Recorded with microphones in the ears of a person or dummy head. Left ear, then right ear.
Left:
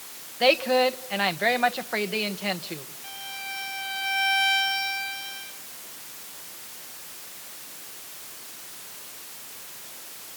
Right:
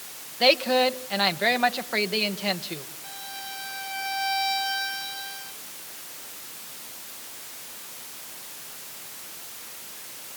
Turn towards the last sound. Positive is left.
turn(degrees=15)  # may be behind; listen again after turning